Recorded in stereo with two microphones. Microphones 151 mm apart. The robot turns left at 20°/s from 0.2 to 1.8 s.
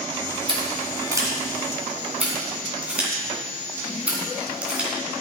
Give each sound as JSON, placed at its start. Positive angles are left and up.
{"t": 0.5, "sound": "scissors", "side_deg": -35, "distance_m": 2.5}